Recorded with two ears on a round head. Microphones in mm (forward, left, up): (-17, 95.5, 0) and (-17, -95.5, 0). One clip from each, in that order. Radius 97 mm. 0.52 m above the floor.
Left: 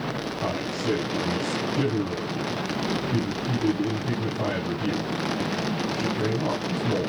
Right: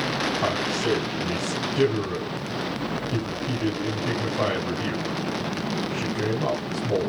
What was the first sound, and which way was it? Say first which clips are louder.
A man speaking: right 3 dB; 75° right (ahead or behind).